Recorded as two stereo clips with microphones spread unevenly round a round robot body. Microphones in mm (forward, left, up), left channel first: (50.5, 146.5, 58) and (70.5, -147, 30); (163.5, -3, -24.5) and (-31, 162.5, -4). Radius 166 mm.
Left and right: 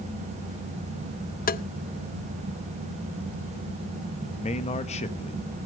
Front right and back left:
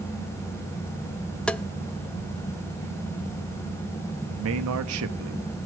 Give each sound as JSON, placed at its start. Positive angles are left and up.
{"t": 1.5, "sound": "tapping", "azimuth_deg": 40, "distance_m": 0.5}
{"t": 4.4, "sound": "a man speaking", "azimuth_deg": 165, "distance_m": 1.1}